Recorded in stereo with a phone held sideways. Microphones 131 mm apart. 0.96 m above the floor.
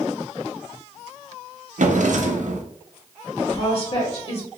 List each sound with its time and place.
1.8 s a drawer: 70° right (ahead or behind), 0.5 m
3.4 s a woman speaking: 50° left (ahead or behind), 1.5 m